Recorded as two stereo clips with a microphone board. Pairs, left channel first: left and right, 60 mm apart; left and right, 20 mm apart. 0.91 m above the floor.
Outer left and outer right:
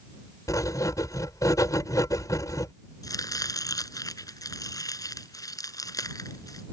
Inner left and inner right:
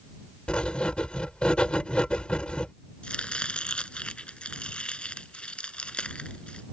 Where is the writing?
70° left (ahead or behind).